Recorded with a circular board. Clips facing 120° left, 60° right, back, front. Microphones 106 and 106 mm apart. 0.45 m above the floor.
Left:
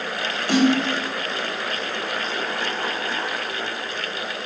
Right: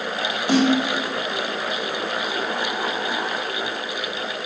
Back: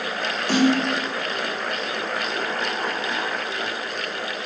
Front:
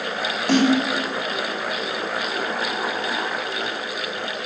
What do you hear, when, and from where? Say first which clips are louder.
0.5 s a snare drum: even, front 1 dB; 5° left, 1.9 m